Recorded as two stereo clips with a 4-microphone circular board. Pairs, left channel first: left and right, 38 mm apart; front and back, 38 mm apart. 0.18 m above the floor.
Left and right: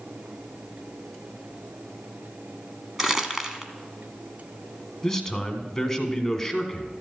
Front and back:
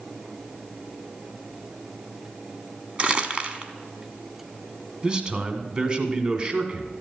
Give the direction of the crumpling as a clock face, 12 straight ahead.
5 o'clock.